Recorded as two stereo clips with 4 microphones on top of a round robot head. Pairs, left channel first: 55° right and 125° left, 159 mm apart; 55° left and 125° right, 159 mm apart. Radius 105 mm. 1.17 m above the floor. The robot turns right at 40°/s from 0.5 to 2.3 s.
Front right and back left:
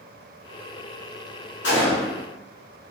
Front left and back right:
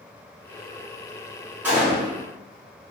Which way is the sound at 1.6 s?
45° right.